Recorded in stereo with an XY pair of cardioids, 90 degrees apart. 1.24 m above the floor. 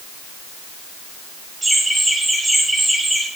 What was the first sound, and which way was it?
Laughter, 20° right.